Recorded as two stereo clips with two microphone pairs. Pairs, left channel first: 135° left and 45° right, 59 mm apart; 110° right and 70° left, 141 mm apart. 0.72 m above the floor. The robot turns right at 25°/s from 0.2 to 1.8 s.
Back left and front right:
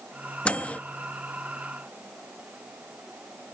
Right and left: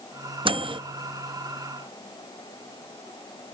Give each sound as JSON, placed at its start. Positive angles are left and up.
{"t": 0.5, "sound": "a microwave", "azimuth_deg": 80, "distance_m": 0.7}